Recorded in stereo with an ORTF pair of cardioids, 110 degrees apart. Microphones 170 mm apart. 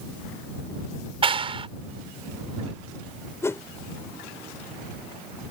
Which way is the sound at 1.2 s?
30° right.